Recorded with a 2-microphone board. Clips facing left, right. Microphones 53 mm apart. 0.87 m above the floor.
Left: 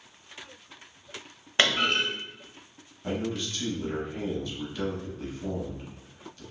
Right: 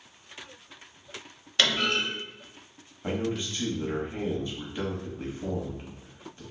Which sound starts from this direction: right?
A man speaking, at 3.0 s.